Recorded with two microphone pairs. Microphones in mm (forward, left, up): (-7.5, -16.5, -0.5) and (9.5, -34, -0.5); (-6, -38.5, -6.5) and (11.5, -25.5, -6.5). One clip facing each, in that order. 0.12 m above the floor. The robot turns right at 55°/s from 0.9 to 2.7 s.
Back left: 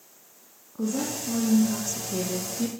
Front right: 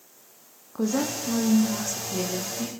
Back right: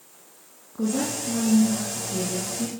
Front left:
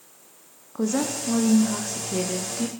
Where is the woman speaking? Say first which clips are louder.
Front right 3 dB, front left 1 dB; 10° right, 5.5 m; by 2.7 s 90° left, 5.5 m.